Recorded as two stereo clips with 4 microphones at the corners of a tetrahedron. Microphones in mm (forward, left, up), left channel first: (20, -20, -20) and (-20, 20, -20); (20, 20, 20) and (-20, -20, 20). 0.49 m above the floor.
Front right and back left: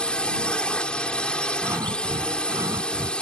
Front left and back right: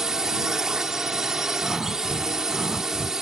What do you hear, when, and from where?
0.0 s a drone: 75° right
1.6 s breathing: 140° left